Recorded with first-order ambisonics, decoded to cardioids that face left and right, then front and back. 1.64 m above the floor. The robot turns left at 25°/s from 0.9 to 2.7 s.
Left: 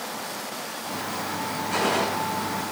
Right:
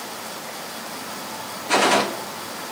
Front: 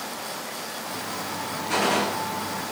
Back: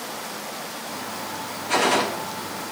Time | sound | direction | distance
1.7 | a gunshot | 100° right | 1.2 m